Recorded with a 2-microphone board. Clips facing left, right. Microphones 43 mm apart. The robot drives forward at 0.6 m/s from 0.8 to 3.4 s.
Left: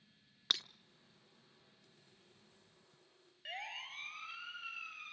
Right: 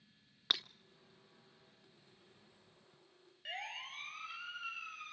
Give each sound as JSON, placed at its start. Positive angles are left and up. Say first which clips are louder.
{"t": 0.5, "sound": "breaking glass", "louder": "right 1 dB", "side_deg": -10, "distance_m": 0.6}
{"t": 3.5, "sound": "a siren", "louder": "right 1 dB", "side_deg": 0, "distance_m": 4.0}